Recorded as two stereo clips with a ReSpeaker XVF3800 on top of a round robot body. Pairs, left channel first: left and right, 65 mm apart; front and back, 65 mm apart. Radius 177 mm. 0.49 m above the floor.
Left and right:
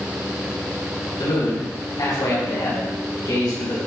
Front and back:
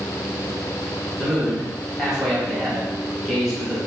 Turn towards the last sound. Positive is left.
turn(degrees=90)